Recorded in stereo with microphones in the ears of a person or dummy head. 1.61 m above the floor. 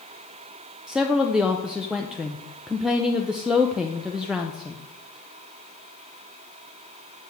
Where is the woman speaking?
Centre (ahead or behind), 0.6 m.